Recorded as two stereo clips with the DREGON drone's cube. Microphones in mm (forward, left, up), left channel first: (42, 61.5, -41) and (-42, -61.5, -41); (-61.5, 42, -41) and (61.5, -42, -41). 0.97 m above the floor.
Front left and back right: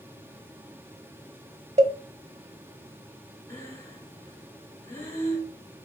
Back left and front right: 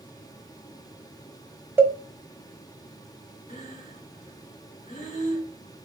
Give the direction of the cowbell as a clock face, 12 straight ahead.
3 o'clock.